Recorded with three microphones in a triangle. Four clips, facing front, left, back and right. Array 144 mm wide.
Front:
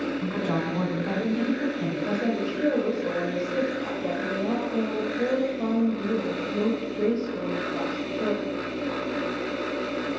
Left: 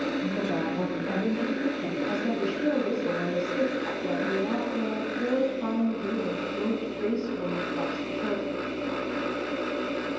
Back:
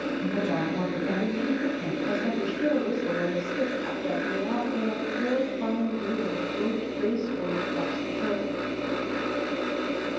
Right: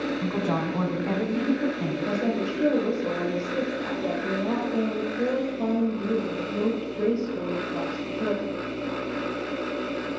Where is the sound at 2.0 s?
40° right, 7.5 m.